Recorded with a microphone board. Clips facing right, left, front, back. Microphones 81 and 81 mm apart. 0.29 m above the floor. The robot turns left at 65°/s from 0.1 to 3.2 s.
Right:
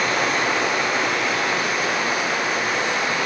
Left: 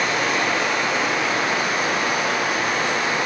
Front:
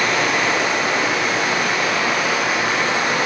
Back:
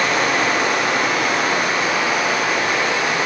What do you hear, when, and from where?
0.0 s running water: 125° right, 2.5 m; by 3.3 s 35° left, 2.5 m